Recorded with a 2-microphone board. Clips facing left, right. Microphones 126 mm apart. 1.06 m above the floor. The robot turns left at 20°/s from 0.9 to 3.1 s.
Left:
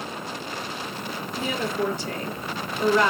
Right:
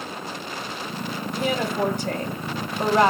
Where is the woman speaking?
90° right, 0.8 m; by 3.1 s 125° right, 0.8 m.